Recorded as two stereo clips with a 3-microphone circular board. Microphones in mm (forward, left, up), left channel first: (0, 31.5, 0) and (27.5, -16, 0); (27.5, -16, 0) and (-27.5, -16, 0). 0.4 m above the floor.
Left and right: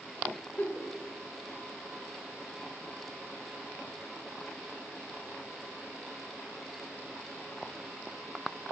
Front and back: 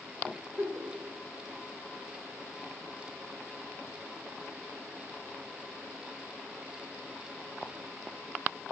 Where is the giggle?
165° left, 1.8 m.